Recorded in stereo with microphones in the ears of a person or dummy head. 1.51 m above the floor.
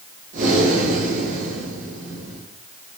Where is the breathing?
50° right (ahead or behind), 1.7 m.